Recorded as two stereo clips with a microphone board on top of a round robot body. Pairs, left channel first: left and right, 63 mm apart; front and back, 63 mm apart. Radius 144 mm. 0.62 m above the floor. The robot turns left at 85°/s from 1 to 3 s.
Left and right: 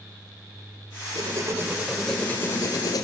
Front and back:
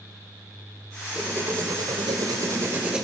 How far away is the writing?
About 3 m.